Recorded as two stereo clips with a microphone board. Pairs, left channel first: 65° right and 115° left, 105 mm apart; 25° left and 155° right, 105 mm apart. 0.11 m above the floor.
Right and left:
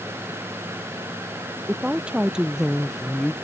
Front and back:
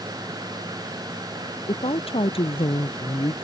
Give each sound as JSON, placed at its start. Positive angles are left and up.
{"t": 1.7, "sound": "a woman speaking", "azimuth_deg": 35}